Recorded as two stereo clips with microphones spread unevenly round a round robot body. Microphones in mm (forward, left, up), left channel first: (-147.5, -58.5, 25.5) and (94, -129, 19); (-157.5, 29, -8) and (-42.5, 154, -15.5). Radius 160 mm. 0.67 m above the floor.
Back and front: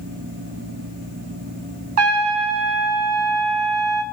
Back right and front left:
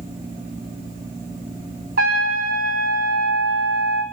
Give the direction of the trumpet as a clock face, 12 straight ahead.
12 o'clock.